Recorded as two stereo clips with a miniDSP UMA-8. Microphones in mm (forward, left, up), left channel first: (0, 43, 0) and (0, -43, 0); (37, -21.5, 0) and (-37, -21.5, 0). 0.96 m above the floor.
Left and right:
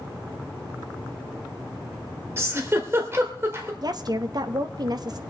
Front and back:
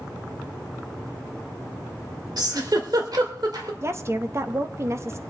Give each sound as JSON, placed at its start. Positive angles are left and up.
{"t": 2.4, "sound": "a giggle", "azimuth_deg": -150, "distance_m": 1.6}
{"t": 3.8, "sound": "a woman speaking", "azimuth_deg": -125, "distance_m": 0.8}